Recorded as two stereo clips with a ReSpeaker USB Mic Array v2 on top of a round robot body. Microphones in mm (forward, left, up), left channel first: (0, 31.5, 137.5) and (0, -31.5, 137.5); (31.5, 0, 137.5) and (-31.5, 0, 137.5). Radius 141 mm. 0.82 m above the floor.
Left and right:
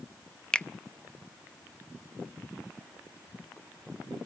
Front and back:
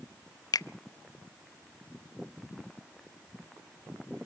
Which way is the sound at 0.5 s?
15° left.